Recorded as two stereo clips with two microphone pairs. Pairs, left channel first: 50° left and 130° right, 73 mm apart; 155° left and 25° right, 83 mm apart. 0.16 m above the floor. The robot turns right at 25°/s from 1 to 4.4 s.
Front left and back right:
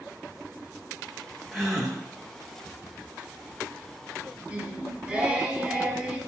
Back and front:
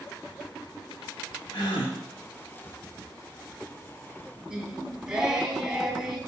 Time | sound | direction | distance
1.5 | a gasp | 130° left | 1.9 m
4.5 | singing | 90° right | 0.9 m